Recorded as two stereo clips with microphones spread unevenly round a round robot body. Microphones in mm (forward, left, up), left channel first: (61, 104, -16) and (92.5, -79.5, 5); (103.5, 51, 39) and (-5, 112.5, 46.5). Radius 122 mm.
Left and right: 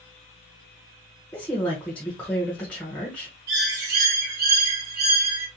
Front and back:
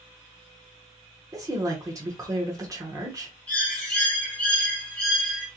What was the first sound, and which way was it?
A woman speaking, 155° left.